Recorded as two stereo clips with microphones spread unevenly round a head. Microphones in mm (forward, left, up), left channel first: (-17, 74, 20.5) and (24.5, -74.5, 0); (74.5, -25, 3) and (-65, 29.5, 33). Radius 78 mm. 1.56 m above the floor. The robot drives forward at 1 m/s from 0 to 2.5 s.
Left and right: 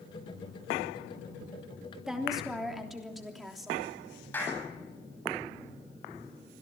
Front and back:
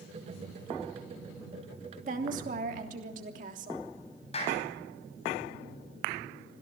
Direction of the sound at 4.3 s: 30° left.